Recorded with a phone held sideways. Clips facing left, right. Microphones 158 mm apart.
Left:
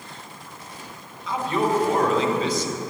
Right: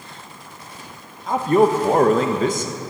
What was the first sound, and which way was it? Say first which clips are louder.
A man speaking: right 7 dB; 50° right (ahead or behind).